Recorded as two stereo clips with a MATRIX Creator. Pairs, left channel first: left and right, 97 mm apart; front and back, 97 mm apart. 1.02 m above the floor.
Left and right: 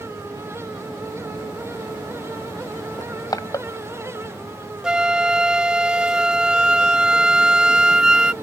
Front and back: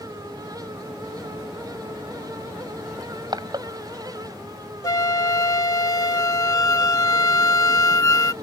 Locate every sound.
3.0 s crushing: 140° left
4.8 s a flute: 15° right